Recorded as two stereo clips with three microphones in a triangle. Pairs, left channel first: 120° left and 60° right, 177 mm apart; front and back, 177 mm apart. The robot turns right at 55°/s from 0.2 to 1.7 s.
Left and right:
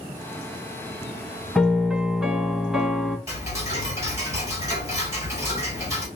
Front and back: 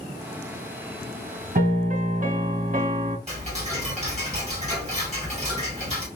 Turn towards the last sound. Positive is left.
turn(degrees=-130)